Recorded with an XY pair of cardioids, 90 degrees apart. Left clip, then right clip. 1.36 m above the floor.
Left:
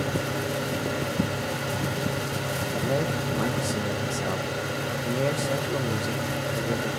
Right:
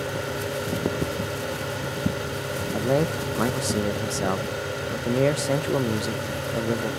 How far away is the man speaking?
About 0.9 m.